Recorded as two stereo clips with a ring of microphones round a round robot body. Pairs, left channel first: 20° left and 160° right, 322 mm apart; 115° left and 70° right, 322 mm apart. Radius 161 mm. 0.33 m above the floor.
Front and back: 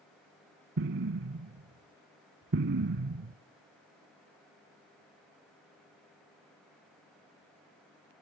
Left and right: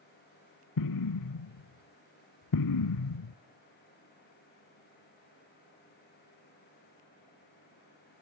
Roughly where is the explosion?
Behind left.